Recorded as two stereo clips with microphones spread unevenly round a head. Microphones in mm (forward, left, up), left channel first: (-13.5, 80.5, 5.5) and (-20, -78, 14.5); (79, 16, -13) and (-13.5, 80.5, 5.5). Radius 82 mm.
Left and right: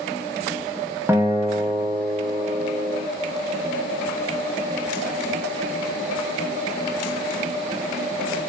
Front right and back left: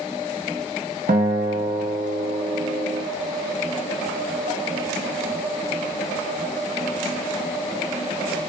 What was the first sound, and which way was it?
A guitar, 165° right.